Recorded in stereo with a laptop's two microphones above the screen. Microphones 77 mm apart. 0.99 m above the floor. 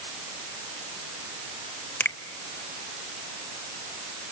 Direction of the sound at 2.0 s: 25° left (ahead or behind).